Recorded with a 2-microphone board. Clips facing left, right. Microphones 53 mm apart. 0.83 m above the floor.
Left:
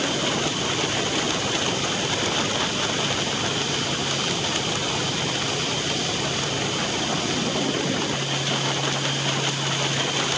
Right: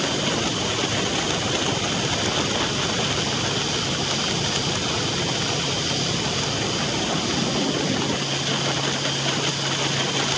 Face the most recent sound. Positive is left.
No sound to turn to.